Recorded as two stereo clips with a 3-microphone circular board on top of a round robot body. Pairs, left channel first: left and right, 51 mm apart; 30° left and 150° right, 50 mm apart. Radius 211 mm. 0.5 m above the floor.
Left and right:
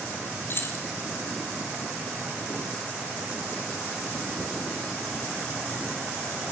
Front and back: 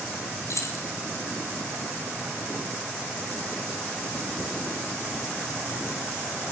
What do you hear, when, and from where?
0.5 s keys jangling: 50° left, 3 m